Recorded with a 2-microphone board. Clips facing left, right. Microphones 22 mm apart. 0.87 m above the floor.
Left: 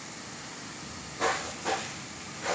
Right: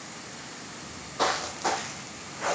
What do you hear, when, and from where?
0.8 s footsteps: 50° right (ahead or behind), 1.3 m; by 2.5 s 65° right (ahead or behind), 3.5 m